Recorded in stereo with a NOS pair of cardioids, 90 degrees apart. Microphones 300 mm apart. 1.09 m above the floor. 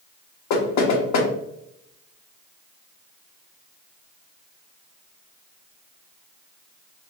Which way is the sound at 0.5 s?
70° left.